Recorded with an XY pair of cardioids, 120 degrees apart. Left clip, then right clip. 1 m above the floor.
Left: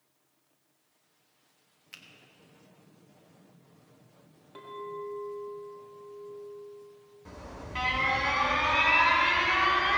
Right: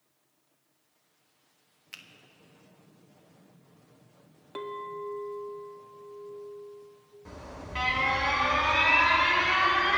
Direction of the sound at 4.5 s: 50° right.